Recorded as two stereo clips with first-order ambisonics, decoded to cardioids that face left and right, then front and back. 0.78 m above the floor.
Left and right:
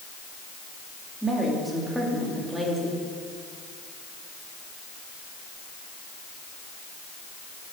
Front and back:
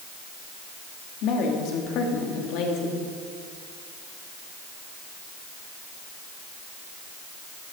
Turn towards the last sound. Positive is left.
turn(degrees=0)